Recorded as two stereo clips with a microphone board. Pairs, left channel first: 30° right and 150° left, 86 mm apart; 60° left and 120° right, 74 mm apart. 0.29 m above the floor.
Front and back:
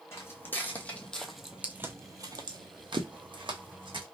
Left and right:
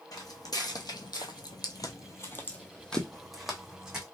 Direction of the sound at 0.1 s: 30° left.